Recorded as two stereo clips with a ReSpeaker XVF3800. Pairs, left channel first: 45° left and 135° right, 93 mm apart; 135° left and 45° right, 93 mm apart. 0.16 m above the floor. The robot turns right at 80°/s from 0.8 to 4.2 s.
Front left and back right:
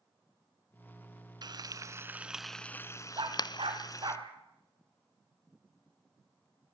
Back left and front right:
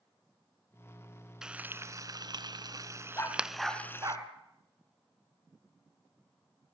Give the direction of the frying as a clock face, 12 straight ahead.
4 o'clock.